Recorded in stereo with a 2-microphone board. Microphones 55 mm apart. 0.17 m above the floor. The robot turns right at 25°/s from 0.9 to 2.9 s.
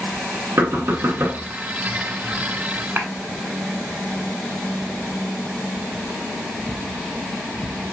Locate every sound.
0.6 s knocking: 50° right (ahead or behind), 1.4 m
3.0 s a clap: 40° right (ahead or behind), 1.1 m